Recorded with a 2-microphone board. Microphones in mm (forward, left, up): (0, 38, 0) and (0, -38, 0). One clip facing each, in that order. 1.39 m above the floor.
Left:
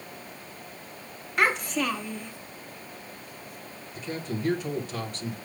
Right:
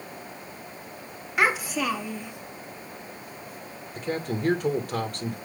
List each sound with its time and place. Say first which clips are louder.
1.4 s a child speaking: right 1 dB; 5° right (ahead or behind), 1.5 m
4.0 s a man speaking: right 4 dB; 55° right (ahead or behind), 2 m